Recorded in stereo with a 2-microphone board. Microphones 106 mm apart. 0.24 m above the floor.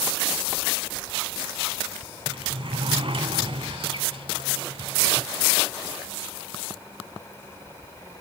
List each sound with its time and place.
2.3 s a sliding door: 55° right (ahead or behind), 0.8 m